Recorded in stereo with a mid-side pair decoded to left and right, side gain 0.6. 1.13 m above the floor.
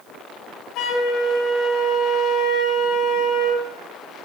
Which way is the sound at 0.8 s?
60° left.